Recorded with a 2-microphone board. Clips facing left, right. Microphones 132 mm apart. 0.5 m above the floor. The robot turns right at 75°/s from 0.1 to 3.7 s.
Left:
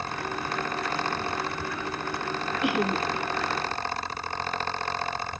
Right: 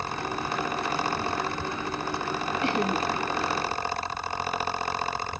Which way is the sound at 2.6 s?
155° left.